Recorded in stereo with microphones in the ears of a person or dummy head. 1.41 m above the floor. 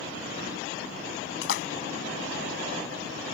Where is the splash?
70° left (ahead or behind).